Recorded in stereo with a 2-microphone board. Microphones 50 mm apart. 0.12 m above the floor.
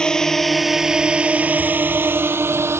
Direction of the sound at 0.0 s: 15° left (ahead or behind).